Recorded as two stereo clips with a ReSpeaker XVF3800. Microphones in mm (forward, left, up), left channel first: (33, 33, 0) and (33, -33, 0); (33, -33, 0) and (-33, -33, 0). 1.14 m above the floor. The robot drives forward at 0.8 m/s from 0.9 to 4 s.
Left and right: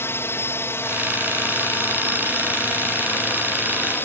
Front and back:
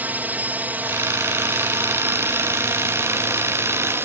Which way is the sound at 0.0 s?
125° left.